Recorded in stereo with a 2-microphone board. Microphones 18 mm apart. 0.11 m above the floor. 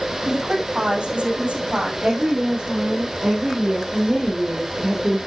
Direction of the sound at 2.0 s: 55° right (ahead or behind).